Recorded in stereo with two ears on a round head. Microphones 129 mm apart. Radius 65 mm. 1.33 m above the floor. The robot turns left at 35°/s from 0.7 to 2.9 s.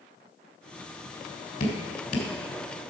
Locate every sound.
1.6 s dripping: 55° left (ahead or behind), 1.9 m